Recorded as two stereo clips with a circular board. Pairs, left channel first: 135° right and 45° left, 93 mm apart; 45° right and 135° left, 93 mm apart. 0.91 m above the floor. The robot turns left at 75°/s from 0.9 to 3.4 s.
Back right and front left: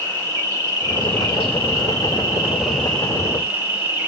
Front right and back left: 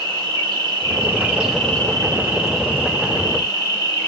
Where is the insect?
90° left, 2 m; by 4.1 s 95° right, 2 m.